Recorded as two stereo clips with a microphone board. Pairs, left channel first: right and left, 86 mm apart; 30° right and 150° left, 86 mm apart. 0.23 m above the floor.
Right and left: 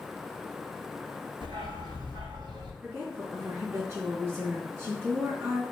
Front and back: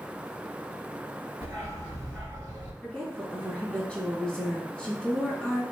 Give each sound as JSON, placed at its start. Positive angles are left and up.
{"t": 1.4, "sound": "a dog barking", "azimuth_deg": 90, "distance_m": 1.3}
{"t": 2.8, "sound": "a woman speaking", "azimuth_deg": 45, "distance_m": 1.5}